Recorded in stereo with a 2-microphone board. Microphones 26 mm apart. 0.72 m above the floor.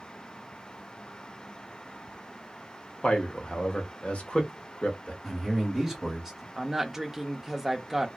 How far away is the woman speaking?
About 0.5 m.